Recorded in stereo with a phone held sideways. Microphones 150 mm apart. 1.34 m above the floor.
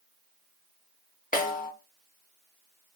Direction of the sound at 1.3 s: 65° left (ahead or behind).